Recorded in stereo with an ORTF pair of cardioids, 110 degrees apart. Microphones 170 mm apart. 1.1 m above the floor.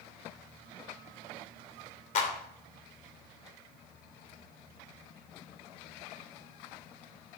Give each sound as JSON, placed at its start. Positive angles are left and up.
{"t": 2.1, "sound": "a clap", "azimuth_deg": 45, "distance_m": 2.5}